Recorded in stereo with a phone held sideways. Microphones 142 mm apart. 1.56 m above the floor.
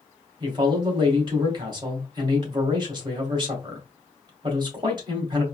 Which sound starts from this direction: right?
A man speaking, at 0.4 s.